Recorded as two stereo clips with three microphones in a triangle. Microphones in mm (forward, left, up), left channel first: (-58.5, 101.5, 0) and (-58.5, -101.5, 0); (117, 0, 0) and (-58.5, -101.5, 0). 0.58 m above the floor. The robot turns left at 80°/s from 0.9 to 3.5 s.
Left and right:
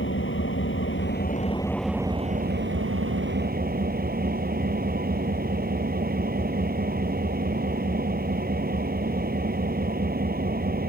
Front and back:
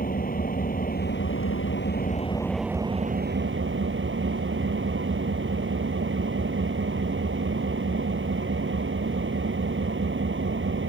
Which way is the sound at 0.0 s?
75° left.